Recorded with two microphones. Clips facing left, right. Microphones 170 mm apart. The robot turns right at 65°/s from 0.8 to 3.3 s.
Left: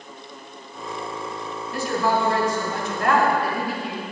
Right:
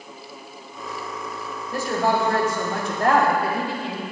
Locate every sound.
1.7 s a woman speaking: 135° right, 2.5 m; by 4.0 s 30° right, 2.5 m